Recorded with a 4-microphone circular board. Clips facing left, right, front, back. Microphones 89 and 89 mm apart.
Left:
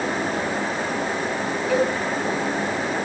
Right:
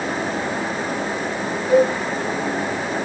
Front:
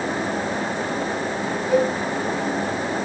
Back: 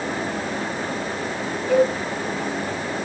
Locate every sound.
1.7 s a cowbell: 150° right, 6.5 m